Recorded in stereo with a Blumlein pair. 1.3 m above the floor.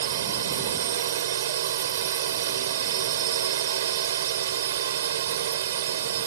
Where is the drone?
60° right.